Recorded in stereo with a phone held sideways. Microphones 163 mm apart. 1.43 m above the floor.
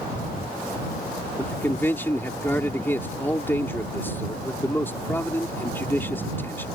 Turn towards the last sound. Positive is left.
turn(degrees=15)  # may be behind; listen again after turning